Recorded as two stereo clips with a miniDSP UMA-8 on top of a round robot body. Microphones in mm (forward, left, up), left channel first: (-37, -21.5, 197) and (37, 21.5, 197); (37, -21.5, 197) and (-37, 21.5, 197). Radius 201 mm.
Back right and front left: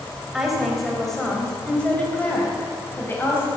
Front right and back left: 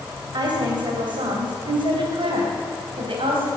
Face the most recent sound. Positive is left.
turn(degrees=145)